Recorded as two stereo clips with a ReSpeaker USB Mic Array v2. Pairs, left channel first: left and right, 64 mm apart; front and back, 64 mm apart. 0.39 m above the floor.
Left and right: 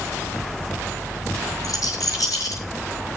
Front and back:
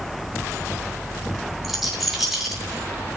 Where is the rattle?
90° left, 7.5 m.